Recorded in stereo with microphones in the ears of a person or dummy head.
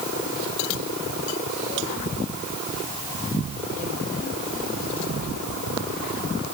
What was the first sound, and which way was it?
Only background noise.